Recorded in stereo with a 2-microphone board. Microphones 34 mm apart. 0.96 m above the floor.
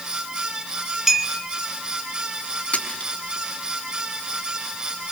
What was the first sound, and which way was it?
A clink, 10° right (ahead or behind).